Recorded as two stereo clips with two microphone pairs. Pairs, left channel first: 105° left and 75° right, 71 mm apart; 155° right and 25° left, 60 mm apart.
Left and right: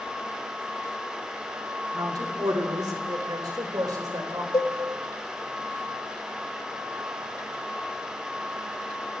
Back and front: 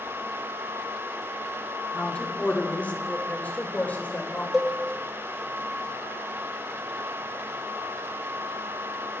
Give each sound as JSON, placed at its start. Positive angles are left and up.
{"t": 1.9, "sound": "a woman speaking", "azimuth_deg": -90, "distance_m": 3.5}
{"t": 4.5, "sound": "a cowbell", "azimuth_deg": 110, "distance_m": 3.0}